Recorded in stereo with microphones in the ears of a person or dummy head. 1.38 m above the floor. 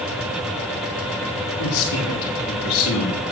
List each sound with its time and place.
1.6 s a man speaking: 80° left, 2.5 m